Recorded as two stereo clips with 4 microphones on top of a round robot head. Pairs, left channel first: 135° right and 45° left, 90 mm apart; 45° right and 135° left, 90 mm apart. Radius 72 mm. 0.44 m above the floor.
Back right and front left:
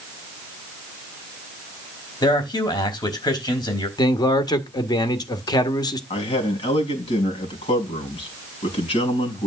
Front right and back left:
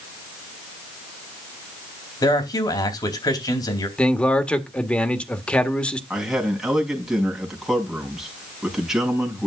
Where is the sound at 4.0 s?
120° right, 1.7 m.